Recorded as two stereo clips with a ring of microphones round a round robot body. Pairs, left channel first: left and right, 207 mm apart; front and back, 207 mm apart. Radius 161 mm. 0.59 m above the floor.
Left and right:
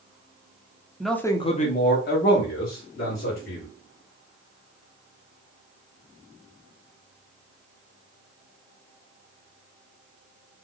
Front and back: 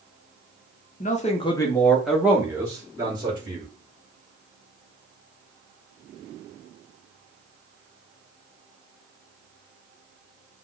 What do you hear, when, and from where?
1.0 s a man speaking: 5° right, 0.8 m; by 3.7 s 110° left, 2.5 m